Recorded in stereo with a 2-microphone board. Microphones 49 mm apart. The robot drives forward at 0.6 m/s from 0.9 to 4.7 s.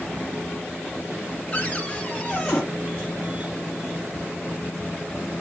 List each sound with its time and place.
1.5 s a cupboard door: 30° left (ahead or behind), 1.9 m; by 2.6 s 25° left (ahead or behind), 2.5 m